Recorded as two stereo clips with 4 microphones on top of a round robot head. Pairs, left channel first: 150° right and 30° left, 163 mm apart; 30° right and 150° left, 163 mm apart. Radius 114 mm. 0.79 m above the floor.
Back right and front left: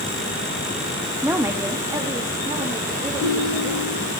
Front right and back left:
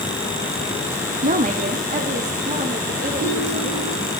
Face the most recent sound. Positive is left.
turn(degrees=-165)